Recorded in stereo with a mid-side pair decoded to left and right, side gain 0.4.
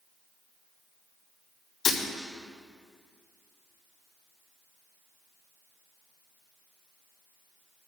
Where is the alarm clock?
I don't hear an alarm clock.